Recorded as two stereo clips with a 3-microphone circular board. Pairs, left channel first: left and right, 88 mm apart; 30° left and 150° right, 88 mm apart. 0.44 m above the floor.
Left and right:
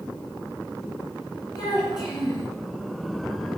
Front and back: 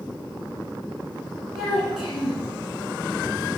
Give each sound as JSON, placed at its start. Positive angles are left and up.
{"t": 1.5, "sound": "a child speaking", "azimuth_deg": 130, "distance_m": 3.0}